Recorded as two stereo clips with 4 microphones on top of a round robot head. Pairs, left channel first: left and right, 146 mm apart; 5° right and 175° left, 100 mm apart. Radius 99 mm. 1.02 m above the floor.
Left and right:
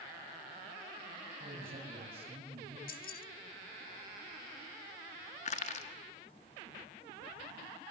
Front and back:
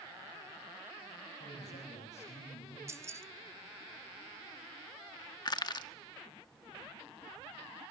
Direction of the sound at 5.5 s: 40° left.